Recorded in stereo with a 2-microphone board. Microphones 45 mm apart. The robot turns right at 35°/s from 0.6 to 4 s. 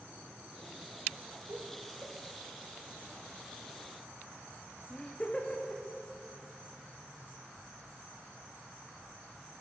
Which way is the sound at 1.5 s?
60° right (ahead or behind).